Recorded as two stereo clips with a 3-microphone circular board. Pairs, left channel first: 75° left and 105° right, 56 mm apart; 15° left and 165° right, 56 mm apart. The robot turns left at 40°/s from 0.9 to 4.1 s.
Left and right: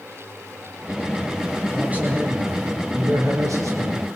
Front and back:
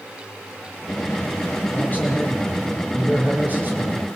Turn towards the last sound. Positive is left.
turn(degrees=-125)